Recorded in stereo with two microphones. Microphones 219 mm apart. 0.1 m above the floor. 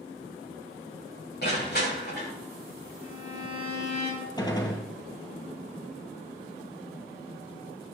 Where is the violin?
70° left (ahead or behind), 6.5 m.